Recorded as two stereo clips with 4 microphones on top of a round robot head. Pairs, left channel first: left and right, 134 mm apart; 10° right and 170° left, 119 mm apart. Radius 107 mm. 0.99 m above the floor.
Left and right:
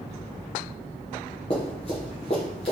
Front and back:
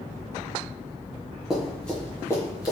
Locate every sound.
1.5 s running footsteps: 90° left, 1.1 m; by 2.7 s 35° left, 1.3 m